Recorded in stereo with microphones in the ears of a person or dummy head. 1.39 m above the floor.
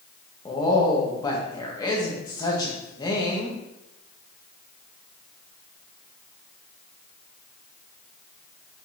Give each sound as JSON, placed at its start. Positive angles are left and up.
{"t": 0.5, "sound": "a woman speaking", "side_deg": 30, "distance_m": 1.4}